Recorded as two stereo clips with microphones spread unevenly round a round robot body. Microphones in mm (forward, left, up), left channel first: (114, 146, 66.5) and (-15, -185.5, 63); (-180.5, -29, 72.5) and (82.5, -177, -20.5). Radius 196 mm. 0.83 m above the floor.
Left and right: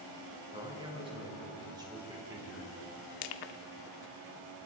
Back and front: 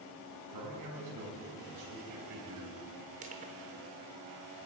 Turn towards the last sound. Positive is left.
turn(degrees=50)